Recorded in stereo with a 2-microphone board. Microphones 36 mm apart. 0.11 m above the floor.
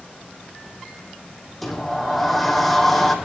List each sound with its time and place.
1.6 s a sliding door: 5° left (ahead or behind), 3 m